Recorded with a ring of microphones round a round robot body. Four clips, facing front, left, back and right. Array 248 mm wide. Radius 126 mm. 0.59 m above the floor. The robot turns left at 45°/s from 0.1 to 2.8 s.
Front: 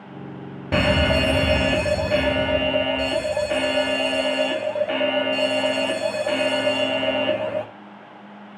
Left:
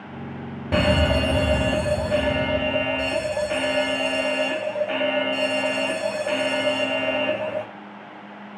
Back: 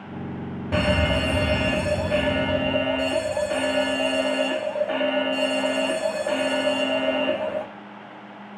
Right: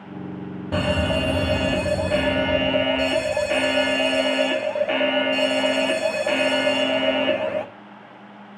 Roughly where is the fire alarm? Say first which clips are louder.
Left 2 dB, front 3 dB; ahead left.